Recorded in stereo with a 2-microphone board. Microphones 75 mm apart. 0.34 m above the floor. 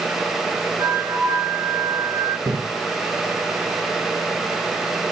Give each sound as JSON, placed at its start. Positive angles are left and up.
{"t": 0.8, "sound": "a flute", "side_deg": -55, "distance_m": 8.0}
{"t": 2.5, "sound": "a splash", "side_deg": -45, "distance_m": 4.5}